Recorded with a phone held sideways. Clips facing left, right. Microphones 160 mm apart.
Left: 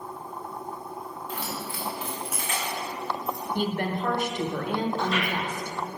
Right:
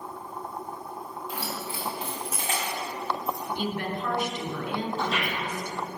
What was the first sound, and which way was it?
Keys jangling, 10° right (ahead or behind).